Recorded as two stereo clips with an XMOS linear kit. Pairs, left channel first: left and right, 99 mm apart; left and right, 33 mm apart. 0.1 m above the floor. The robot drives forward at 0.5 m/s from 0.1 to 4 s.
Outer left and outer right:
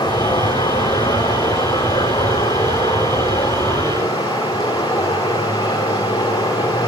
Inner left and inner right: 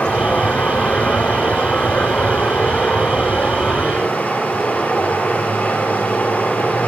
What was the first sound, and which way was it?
Running water, 45° left (ahead or behind).